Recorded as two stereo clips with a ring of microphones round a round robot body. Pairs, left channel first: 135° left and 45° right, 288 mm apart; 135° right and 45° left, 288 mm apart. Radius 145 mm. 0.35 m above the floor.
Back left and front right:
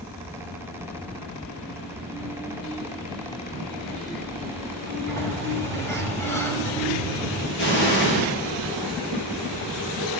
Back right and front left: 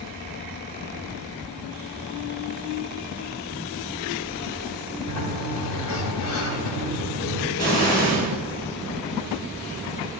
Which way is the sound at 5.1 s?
145° right.